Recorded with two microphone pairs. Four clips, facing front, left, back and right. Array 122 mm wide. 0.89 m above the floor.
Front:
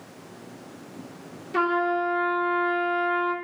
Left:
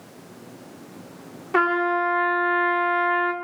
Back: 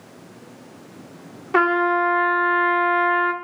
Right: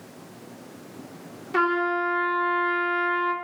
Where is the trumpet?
155° left, 1.8 m.